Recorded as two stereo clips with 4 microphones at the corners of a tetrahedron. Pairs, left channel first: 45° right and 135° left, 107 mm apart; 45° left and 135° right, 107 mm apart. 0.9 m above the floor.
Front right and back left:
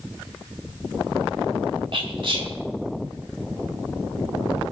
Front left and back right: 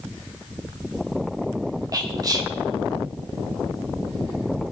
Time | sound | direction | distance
1.9 | whispering | 170° left | 2 m